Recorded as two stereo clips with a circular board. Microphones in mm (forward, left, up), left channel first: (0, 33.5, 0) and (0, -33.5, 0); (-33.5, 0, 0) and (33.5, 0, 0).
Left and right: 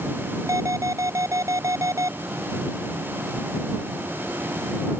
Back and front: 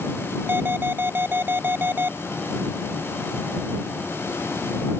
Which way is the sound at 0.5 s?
55° right.